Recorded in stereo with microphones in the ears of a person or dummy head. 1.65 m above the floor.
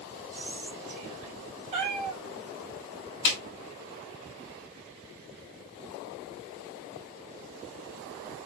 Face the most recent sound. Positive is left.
turn(degrees=35)  # may be behind; listen again after turning